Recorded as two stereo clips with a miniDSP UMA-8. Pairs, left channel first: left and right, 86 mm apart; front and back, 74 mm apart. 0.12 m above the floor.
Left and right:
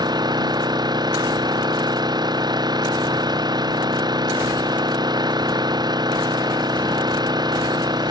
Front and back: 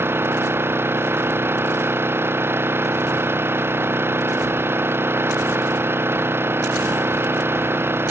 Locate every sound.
0.0 s an engine running: 120° right